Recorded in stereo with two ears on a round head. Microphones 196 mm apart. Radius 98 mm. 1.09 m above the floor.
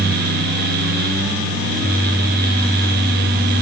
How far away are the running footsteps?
No running footsteps in this recording.